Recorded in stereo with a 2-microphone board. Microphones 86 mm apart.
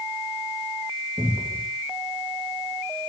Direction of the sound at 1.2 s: 30° right (ahead or behind).